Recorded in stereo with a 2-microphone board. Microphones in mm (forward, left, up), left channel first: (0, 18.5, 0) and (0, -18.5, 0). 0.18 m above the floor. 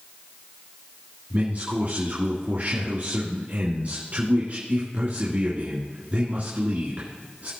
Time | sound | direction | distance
1.3 | a man speaking | 45° right (ahead or behind) | 2.5 m